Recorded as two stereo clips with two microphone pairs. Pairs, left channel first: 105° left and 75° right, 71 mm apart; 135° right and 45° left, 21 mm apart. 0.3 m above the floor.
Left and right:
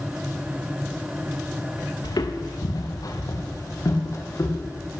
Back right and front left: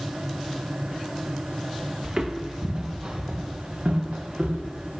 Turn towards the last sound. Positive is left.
turn(degrees=60)